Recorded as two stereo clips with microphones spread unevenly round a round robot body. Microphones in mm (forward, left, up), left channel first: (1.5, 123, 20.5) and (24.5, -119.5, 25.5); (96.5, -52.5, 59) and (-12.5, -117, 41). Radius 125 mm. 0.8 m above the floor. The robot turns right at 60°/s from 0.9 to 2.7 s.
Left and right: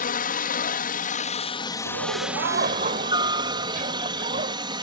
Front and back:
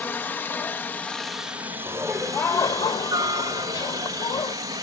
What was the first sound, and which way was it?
A helicopter, 110° left.